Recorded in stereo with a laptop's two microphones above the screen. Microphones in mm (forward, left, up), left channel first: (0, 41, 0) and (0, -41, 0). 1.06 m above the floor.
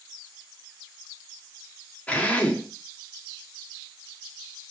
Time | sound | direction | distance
2.1 | a drill | 15° left (ahead or behind) | 1.4 m